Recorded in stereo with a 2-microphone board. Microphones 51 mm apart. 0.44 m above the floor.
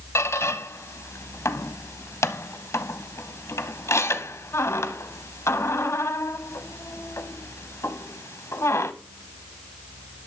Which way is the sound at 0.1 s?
65° left (ahead or behind).